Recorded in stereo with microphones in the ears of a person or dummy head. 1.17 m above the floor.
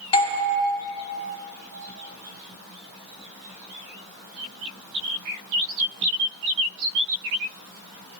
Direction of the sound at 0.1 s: 35° left (ahead or behind).